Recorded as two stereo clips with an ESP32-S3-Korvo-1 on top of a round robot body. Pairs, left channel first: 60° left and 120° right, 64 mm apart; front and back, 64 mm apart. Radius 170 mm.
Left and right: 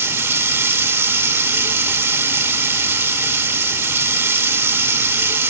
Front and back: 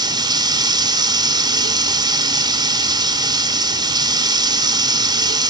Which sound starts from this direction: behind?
Running water, at 0.0 s.